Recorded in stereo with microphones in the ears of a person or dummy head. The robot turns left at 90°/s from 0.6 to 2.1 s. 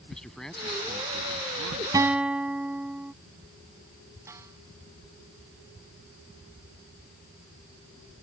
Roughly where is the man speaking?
Ahead.